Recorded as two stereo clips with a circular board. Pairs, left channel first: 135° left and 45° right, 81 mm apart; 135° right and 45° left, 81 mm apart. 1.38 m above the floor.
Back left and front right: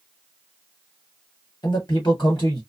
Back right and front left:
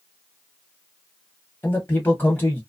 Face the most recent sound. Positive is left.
turn(degrees=160)